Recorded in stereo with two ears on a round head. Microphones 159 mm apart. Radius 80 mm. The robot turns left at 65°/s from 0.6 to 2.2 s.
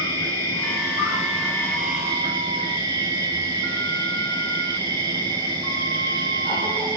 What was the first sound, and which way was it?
An insect, 80° left.